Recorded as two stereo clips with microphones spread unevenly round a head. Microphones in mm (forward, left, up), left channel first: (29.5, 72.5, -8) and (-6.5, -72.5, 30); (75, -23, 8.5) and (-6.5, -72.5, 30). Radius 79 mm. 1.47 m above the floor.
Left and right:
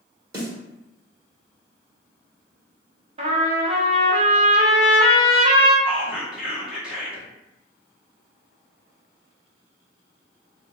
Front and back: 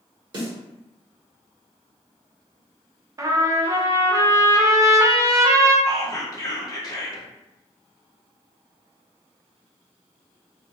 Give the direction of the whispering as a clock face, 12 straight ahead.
1 o'clock.